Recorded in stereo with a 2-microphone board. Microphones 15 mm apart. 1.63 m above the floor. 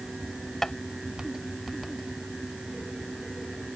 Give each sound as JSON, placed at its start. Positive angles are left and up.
{"t": 0.6, "sound": "tapping", "side_deg": 15}